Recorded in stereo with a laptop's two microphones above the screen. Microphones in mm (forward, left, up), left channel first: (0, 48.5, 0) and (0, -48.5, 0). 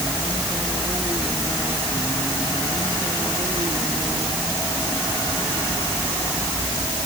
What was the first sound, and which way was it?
Only background noise.